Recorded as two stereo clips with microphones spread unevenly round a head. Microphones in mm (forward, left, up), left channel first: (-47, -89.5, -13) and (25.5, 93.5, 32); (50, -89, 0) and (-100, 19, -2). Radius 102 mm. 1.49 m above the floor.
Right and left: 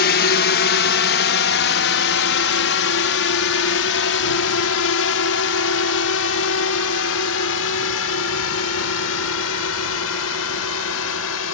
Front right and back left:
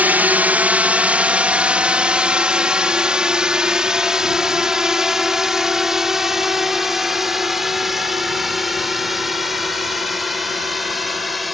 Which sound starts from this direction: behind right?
A drone, at 0.0 s.